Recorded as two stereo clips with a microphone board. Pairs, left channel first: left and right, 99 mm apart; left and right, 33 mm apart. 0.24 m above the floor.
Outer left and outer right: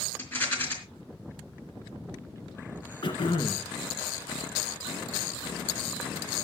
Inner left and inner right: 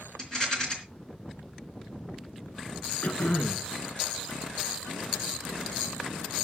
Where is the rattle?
20° left (ahead or behind), 3.5 m.